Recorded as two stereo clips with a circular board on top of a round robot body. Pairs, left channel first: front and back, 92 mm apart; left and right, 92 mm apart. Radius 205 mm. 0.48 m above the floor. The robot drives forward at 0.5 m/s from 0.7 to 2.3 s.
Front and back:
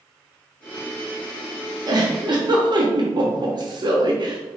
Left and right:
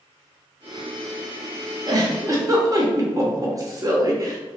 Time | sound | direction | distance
1.9 | a giggle | 135° right | 1.0 m